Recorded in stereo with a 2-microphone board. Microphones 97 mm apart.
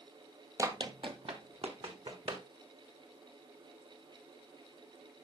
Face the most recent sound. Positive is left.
turn(degrees=-75)  # may be behind; listen again after turning